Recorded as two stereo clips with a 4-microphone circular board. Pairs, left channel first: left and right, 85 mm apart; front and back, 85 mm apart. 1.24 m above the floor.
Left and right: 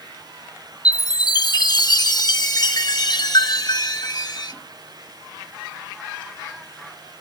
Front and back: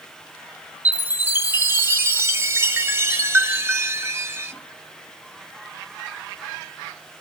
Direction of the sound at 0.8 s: 120° left.